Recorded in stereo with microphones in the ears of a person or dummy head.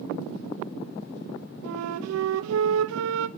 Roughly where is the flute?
Right.